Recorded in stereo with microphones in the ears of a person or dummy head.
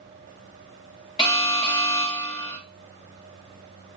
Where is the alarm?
25° left (ahead or behind), 1.0 m.